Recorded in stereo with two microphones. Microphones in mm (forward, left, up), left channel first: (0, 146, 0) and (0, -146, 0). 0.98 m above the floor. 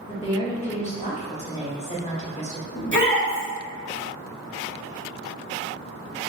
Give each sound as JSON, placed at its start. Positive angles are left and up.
{"t": 0.1, "sound": "a woman speaking", "side_deg": 20, "distance_m": 1.4}
{"t": 2.7, "sound": "a shout", "side_deg": 40, "distance_m": 1.8}